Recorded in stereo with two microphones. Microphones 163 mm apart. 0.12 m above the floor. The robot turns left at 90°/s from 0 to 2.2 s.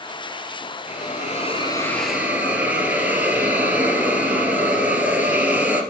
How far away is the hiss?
About 2.5 m.